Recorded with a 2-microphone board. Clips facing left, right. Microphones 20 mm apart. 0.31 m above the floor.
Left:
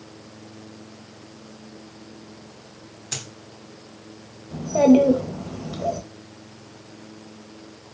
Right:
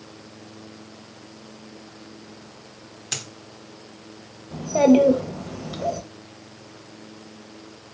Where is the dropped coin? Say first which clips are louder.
Right 2 dB; 30° right (ahead or behind), 0.8 m.